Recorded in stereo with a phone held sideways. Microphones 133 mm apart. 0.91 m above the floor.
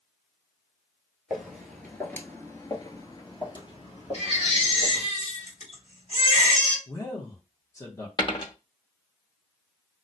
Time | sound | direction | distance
1.3 | footsteps | centre (ahead or behind) | 1.1 m
4.1 | a baby crying | 55° left (ahead or behind) | 1.7 m
6.9 | a man speaking | 20° left (ahead or behind) | 0.8 m
8.2 | a dropped coin | 35° left (ahead or behind) | 0.7 m